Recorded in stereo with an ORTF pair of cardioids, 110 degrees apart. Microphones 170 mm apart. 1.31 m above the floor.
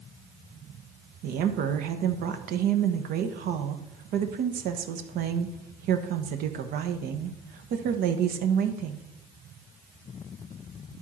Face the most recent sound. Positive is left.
turn(degrees=-65)